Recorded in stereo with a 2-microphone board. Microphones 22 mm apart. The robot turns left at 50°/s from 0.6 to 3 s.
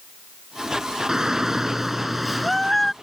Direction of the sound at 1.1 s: 30° right (ahead or behind).